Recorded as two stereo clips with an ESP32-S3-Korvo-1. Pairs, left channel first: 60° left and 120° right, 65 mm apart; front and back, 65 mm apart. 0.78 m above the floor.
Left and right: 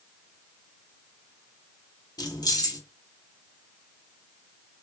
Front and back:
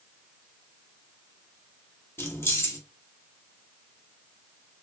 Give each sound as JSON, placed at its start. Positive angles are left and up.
{"t": 2.2, "sound": "keys jangling", "azimuth_deg": 55, "distance_m": 0.8}